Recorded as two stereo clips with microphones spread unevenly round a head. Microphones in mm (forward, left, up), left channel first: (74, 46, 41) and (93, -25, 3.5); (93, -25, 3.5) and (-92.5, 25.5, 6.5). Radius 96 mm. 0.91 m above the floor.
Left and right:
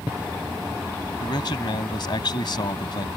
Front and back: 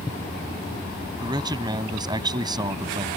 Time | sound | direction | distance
1.2 | a man speaking | 95° left | ?